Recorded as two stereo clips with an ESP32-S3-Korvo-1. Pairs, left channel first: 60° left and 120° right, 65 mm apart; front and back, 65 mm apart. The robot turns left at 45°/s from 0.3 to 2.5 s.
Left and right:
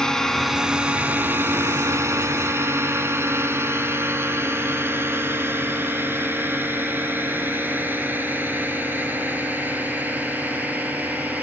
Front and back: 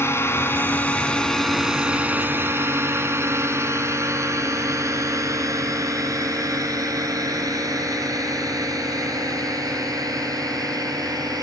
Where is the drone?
15° right; by 11.4 s straight behind.